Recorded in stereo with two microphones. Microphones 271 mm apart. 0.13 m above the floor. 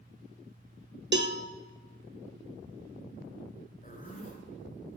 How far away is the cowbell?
About 1.0 m.